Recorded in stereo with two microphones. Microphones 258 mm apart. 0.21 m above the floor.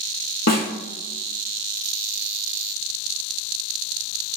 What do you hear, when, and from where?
0.5 s a snare drum: 80° left, 1.1 m